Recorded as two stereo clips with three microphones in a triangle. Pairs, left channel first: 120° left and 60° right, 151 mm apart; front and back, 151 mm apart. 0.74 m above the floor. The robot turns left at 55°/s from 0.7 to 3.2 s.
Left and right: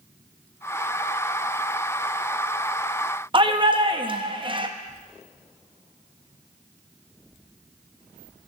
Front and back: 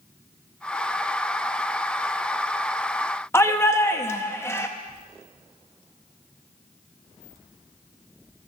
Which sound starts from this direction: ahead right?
A shout, at 3.3 s.